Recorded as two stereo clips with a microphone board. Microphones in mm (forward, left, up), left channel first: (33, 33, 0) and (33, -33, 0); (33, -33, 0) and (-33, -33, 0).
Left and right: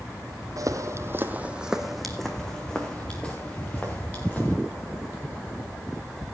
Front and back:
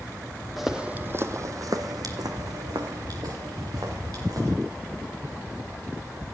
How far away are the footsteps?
About 1.1 m.